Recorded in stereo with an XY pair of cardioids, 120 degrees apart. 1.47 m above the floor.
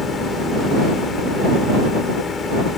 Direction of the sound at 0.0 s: 35° left.